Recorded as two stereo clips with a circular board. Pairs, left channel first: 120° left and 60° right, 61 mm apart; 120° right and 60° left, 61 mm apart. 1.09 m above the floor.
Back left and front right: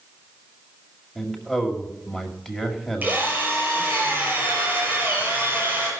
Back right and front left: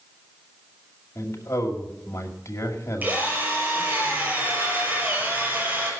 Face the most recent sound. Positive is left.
turn(degrees=5)